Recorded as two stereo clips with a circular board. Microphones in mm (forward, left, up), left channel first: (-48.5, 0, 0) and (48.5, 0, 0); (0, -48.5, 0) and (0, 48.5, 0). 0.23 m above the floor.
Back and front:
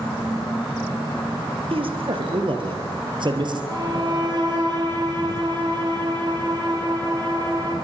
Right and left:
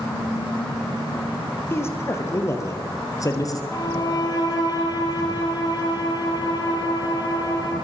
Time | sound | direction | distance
1.7 | a man speaking | 25° right | 5 m
3.7 | a violin | 45° right | 6.5 m